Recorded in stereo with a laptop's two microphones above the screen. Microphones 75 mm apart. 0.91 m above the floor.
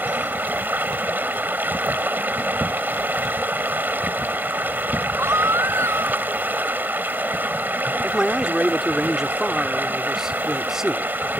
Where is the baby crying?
40° right (ahead or behind).